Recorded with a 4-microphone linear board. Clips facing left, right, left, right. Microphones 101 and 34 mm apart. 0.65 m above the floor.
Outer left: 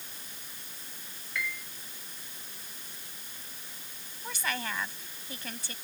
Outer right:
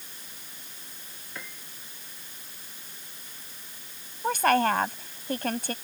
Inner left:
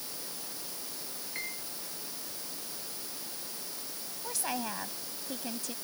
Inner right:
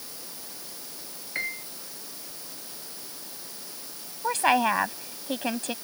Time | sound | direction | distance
1.4 | a piano | 35° right (ahead or behind) | ?
4.2 | a woman speaking | 55° right (ahead or behind) | ?